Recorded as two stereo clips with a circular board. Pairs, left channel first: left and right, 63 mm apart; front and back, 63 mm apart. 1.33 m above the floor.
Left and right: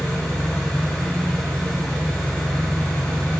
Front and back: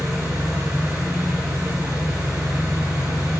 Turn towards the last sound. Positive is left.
turn(degrees=155)